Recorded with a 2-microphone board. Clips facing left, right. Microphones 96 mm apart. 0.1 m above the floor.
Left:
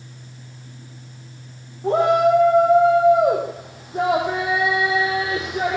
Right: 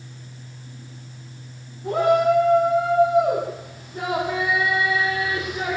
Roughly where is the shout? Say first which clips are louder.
Left 2 dB; left.